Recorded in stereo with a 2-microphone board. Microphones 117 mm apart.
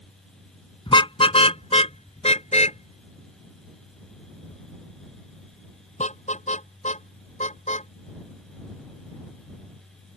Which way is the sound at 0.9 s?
45° left (ahead or behind).